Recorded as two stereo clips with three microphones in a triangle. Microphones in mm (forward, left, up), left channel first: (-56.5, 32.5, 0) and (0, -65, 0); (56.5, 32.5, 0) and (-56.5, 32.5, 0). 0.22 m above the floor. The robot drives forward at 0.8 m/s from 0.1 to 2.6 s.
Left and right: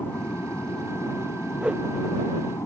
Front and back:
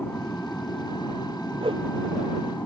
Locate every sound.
0.0 s an aircraft: 60° left; by 2.7 s 70° left
1.6 s a whoosh: 140° right; by 1.9 s 145° right